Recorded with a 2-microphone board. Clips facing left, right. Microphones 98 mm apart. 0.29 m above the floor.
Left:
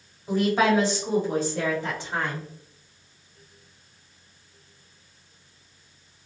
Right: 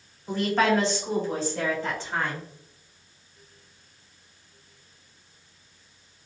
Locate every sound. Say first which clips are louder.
0.3 s a woman speaking: left 2 dB; 5° left (ahead or behind), 1.4 m; by 2.5 s 15° left (ahead or behind), 1.9 m